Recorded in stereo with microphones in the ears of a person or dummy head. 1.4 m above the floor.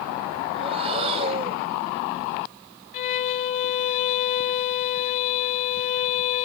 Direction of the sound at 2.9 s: 40° left (ahead or behind).